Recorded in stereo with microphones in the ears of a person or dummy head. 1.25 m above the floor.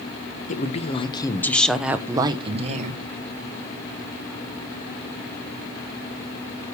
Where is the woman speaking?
45° left (ahead or behind), 0.9 m; by 3.0 s 45° right (ahead or behind), 0.9 m.